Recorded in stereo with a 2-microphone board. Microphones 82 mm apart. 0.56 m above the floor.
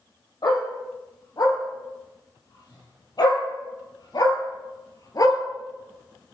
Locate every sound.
0.4 s a dog barking: 60° left (ahead or behind), 6 m; by 5.4 s 50° left (ahead or behind), 3 m